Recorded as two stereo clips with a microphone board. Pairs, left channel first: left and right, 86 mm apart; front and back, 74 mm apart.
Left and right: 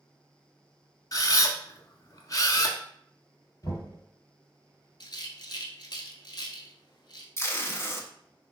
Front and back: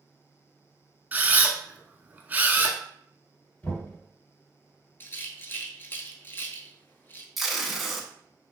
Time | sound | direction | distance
1.1 | a camera shutter | 120° left | 0.5 m
3.6 | knocking | 60° left | 1.5 m
5.0 | a rattle | 60° left | 0.6 m
7.4 | tape being pulled | 90° left | 0.6 m